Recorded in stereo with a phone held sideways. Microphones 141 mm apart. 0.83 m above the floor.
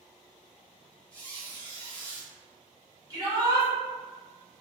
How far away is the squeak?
About 0.8 m.